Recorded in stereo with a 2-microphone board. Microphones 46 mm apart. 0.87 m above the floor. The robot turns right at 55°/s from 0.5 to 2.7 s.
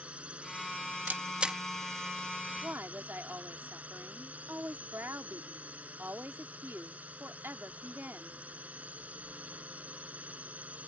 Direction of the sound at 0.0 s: 155° right.